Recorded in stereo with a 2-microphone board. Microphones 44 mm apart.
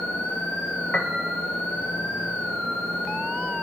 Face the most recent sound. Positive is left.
turn(degrees=25)  # may be behind; listen again after turning